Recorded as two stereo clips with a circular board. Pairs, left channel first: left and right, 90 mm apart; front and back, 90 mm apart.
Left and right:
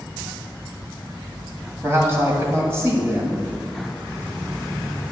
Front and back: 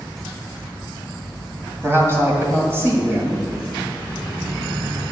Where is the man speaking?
135° right, 1.8 m.